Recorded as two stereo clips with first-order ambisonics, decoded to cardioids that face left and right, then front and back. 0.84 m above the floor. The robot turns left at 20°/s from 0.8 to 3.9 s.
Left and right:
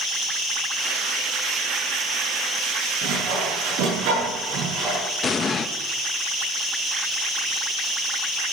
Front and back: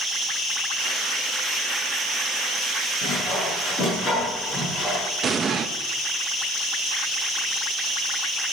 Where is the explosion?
140° left, 1.0 m.